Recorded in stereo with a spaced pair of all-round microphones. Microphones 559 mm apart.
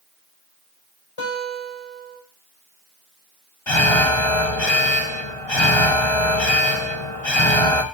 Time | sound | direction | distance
1.2 | a guitar | 70° left (ahead or behind) | 5 m
3.7 | an alarm | 80° left | 1.3 m